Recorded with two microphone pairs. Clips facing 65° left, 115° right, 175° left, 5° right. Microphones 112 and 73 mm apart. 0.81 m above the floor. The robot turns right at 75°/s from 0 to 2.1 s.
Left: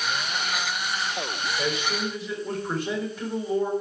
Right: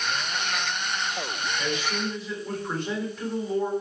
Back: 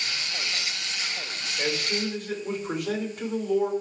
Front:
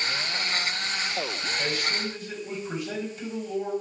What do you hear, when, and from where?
1.6 s a man speaking: 115° left, 3 m; by 3.7 s 155° left, 3 m